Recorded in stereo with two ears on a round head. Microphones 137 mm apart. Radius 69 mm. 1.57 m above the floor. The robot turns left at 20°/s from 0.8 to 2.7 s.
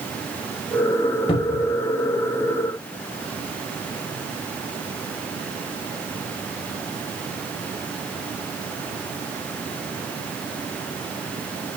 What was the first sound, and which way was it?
A cupboard door, 35° left (ahead or behind).